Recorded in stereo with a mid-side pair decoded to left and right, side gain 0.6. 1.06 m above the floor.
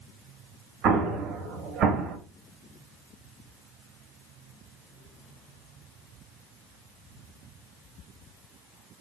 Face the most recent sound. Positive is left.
turn(degrees=-55)